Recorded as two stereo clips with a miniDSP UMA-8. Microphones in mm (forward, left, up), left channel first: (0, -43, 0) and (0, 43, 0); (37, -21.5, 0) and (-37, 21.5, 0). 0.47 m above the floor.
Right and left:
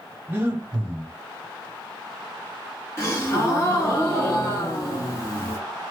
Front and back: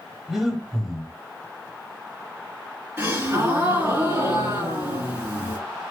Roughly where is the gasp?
Behind right.